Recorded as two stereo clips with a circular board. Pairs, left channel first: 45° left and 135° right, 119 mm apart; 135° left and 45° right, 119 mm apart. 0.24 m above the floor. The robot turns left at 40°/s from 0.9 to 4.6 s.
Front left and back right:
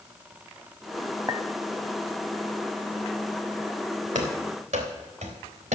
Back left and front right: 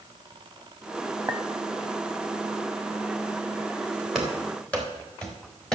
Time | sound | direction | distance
1.3 | a clink | 95° right | 0.7 m
4.2 | running footsteps | 130° right | 3.5 m